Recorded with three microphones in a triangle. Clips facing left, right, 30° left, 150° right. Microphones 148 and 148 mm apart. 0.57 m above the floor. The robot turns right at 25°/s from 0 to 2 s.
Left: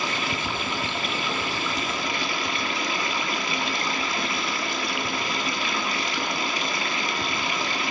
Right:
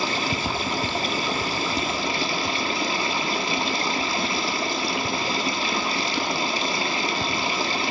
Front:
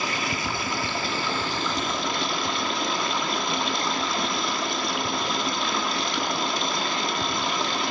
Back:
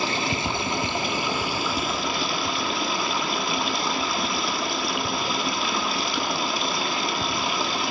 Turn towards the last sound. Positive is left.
turn(degrees=-65)